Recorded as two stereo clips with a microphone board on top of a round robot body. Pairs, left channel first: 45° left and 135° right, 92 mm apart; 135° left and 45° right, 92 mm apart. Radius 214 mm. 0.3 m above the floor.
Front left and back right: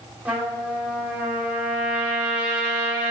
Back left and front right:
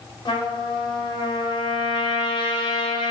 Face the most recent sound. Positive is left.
turn(degrees=150)